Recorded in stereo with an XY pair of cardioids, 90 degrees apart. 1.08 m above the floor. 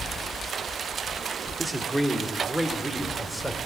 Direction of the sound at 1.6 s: 10° right.